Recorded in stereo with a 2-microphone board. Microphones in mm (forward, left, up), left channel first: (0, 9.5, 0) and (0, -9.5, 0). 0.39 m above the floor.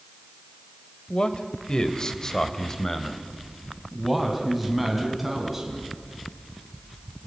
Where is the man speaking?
55° left (ahead or behind), 1.9 m; by 6.0 s 10° right (ahead or behind), 4.5 m.